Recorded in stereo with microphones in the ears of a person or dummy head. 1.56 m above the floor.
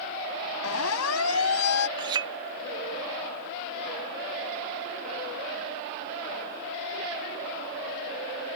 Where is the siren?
80° left; by 1.9 s 75° left (ahead or behind).